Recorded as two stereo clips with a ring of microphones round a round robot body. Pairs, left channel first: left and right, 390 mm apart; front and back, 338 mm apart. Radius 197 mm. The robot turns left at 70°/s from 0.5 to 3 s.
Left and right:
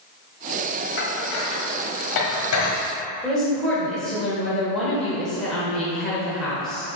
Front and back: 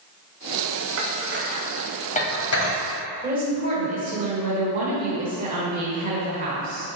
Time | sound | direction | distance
1.0 | dishes clattering | 150° left | 1.3 m
3.2 | a woman speaking | 175° left | 1.3 m